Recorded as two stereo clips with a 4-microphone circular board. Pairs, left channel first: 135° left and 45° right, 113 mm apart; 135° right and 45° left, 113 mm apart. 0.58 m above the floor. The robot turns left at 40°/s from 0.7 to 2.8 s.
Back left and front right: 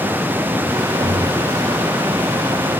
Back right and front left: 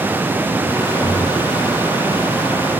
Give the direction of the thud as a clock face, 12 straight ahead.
2 o'clock.